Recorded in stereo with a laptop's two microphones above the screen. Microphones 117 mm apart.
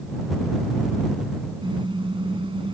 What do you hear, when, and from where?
1.6 s a car horn: 45° right (ahead or behind); by 2.8 s 50° right (ahead or behind)